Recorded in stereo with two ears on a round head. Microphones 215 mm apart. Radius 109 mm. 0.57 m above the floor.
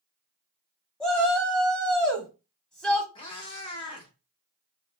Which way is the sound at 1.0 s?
5° left (ahead or behind).